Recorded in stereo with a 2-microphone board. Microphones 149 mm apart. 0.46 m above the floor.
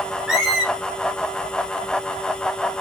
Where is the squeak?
5° right (ahead or behind), 1.1 m.